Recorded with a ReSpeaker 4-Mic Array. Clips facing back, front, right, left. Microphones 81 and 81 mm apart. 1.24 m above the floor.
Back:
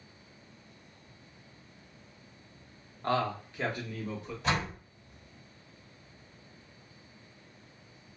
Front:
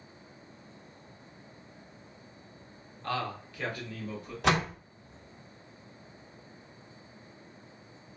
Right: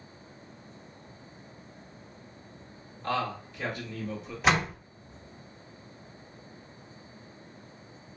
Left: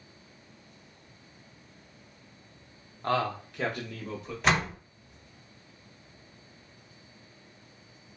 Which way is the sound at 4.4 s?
5° right.